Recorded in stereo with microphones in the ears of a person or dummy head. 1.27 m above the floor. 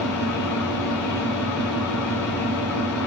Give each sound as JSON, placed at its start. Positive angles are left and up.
{"t": 0.0, "sound": "an engine running", "side_deg": 10, "distance_m": 6.5}